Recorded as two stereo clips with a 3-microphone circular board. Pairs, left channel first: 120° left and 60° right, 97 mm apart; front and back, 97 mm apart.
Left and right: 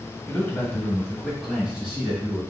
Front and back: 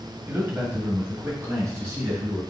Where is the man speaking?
140° left, 1.3 m; by 2.4 s 130° right, 2.0 m.